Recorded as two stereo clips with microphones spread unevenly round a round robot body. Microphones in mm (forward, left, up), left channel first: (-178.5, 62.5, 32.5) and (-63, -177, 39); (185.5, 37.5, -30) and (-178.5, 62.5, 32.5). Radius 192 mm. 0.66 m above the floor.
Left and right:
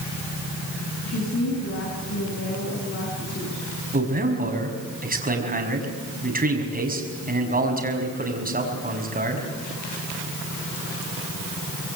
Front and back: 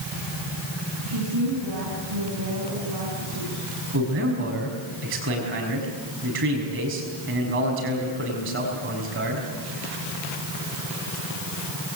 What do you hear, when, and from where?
1.1 s a woman speaking: 155° left, 7 m
3.9 s a man speaking: 120° right, 5.5 m